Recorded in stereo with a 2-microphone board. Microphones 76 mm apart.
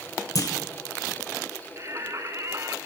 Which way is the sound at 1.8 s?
40° right (ahead or behind).